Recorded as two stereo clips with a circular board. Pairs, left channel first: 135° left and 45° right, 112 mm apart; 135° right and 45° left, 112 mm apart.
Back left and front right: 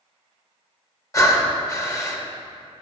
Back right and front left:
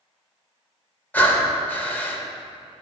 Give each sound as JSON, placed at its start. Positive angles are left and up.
{"t": 1.1, "sound": "breathing", "azimuth_deg": 165, "distance_m": 0.8}